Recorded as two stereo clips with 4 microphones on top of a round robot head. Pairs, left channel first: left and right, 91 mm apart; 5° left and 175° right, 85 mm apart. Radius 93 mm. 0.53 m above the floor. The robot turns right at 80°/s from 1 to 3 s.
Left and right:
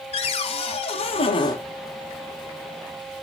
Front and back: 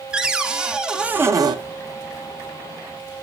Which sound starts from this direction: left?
A cupboard door, at 0.1 s.